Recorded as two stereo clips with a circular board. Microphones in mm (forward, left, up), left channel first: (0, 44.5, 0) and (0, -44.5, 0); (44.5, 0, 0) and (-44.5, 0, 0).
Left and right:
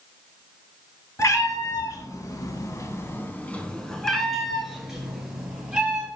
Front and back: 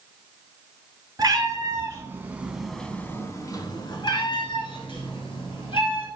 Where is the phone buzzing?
I don't hear a phone buzzing.